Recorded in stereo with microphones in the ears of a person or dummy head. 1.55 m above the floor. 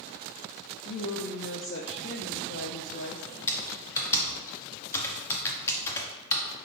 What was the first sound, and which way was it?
A woman speaking, 55° left (ahead or behind).